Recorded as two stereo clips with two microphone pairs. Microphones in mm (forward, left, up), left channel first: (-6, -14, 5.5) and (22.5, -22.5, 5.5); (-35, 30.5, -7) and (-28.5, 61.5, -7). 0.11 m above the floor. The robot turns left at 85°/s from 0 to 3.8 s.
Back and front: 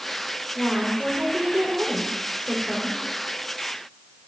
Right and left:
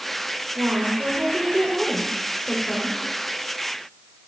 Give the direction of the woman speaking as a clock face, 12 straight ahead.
9 o'clock.